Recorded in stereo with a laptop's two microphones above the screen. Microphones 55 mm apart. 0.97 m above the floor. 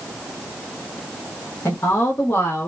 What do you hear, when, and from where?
1.6 s a woman speaking: 60° left (ahead or behind), 0.8 m; by 2.7 s 70° left (ahead or behind), 1.3 m